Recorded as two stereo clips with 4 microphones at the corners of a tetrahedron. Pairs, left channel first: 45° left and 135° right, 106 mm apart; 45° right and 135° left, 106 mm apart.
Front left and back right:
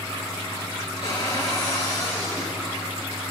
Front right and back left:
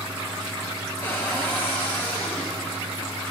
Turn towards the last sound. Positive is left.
turn(degrees=25)